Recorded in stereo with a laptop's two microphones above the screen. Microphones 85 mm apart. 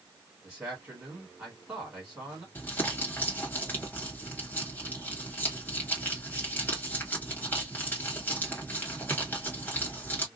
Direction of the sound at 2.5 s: 20° left (ahead or behind).